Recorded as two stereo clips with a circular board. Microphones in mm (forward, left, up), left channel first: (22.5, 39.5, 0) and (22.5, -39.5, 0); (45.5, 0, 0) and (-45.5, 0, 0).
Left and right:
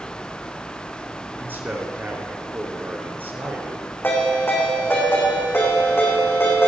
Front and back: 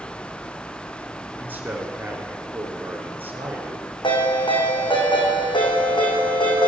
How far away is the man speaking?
About 1.9 m.